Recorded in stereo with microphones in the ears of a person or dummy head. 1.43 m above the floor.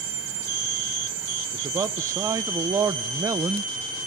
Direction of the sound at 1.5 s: 20° right (ahead or behind).